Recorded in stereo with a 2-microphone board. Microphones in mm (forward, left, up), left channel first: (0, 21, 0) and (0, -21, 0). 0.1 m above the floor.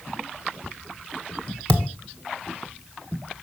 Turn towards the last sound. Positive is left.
turn(degrees=25)  # may be behind; listen again after turning